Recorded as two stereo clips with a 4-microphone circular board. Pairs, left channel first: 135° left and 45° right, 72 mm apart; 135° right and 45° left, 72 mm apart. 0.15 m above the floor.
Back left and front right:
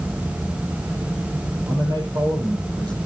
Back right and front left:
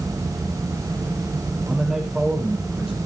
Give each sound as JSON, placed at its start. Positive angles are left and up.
{"t": 1.7, "sound": "a man speaking", "azimuth_deg": -40, "distance_m": 5.0}